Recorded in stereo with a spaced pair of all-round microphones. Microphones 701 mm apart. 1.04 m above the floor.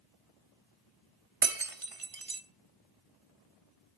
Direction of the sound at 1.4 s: 50° right (ahead or behind).